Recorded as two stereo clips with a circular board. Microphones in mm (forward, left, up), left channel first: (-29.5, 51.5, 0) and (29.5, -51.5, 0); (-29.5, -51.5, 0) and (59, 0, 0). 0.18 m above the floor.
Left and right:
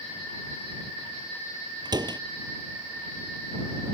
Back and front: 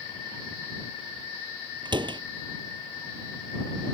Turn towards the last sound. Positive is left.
turn(degrees=-10)